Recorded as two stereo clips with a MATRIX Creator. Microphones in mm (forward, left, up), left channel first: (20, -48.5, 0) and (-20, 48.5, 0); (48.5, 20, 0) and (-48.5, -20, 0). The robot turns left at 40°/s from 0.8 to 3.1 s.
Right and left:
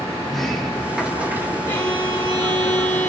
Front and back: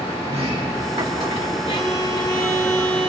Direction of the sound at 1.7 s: Straight ahead.